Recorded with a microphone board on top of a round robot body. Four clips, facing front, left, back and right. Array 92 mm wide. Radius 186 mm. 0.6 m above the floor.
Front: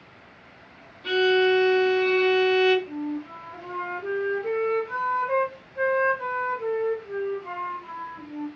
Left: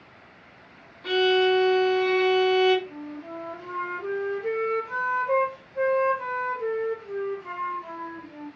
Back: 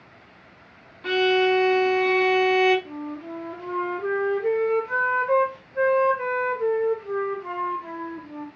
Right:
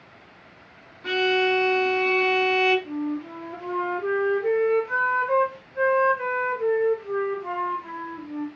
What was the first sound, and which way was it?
A violin, 170° right.